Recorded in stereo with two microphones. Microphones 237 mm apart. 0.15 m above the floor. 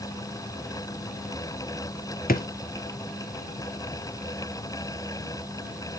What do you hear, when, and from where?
2.3 s a drawer: 40° left (ahead or behind), 0.8 m